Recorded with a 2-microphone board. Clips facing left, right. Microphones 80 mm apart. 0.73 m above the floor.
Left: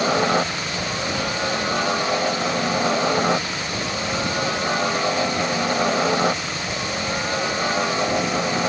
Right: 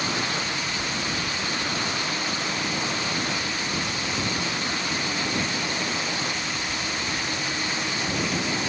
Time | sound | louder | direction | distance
0.0 | a helicopter | left 9 dB | 70° left (ahead or behind) | ?